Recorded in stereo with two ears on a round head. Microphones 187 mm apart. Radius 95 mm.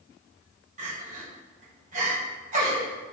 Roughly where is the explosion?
No explosion in this recording.